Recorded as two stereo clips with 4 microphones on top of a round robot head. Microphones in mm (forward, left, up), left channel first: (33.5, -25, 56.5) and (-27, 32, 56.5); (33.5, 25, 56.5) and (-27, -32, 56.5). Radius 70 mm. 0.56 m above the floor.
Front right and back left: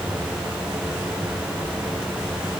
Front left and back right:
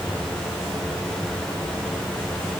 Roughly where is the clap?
No clap in this recording.